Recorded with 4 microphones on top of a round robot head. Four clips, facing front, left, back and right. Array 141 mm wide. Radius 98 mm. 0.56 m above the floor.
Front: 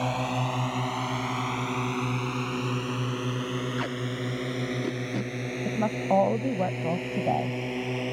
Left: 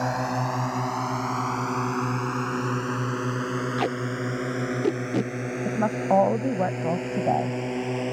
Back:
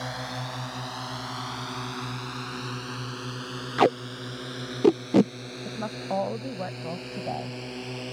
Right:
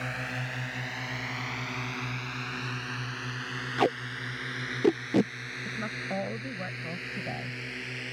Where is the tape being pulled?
175° right.